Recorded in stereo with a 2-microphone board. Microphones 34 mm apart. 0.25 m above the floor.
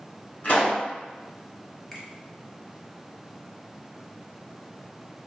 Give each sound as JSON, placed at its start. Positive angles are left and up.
{"t": 0.4, "sound": "a pop", "side_deg": 55, "distance_m": 1.8}
{"t": 1.9, "sound": "a finger snap", "side_deg": 10, "distance_m": 0.9}